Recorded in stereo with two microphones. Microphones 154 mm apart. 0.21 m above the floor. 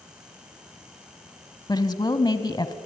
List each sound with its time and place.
1.7 s a woman speaking: 25° left (ahead or behind), 1.3 m